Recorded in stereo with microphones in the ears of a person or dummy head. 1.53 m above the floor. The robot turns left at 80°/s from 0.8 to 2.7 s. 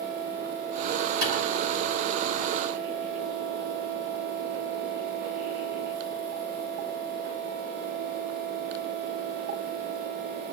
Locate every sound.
1.2 s a clap: 85° right, 8.5 m; by 1.3 s 80° right, 8.5 m